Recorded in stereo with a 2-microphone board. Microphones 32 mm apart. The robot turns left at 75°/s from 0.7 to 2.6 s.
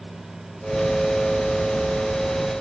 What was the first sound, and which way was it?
Only background noise.